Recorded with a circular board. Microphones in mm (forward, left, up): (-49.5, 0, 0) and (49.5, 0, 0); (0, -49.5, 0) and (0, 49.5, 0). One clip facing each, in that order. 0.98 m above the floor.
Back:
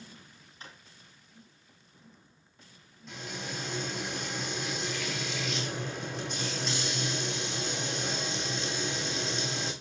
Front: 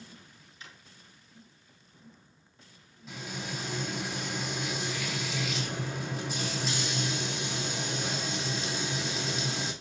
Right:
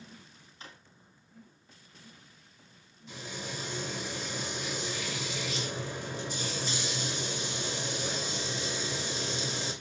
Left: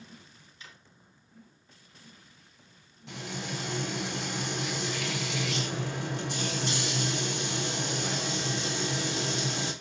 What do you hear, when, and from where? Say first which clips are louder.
0.6 s a drawer: back 2 dB, right 3 dB; 135° right, 3 m
3.1 s frying: front 1 dB, left 4 dB; 85° left, 4.5 m